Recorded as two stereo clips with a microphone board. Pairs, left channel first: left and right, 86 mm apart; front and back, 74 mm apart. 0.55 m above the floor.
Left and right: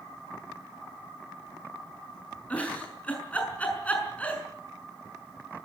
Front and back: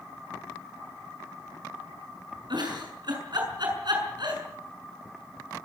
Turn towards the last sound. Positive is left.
turn(degrees=165)